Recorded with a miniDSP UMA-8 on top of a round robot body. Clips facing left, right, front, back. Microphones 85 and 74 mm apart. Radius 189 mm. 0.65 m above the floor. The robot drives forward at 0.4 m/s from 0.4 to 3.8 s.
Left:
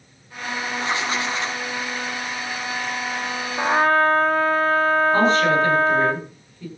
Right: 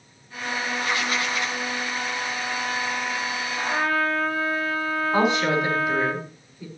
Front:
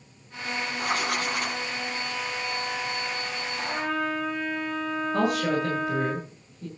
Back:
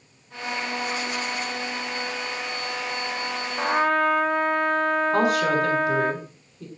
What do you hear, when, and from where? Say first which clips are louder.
0.8 s writing: left 3 dB, front 1 dB; 25° left, 2.5 m; by 1.6 s 30° left, 2.5 m
3.6 s a trumpet: left 7 dB, back 8 dB; 135° left, 0.6 m; by 6.1 s 140° left, 0.7 m
5.1 s a woman speaking: left 4 dB, back 1 dB; 170° right, 8 m